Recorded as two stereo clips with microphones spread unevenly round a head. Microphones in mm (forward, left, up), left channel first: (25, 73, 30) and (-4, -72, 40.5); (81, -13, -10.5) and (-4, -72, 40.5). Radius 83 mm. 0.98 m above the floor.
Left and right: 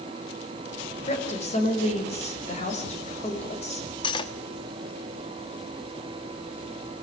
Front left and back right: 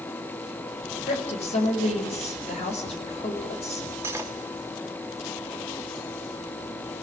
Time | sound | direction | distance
1.1 | a woman speaking | 35° left | 6 m
4.0 | cutlery clinking | 140° left | 1.2 m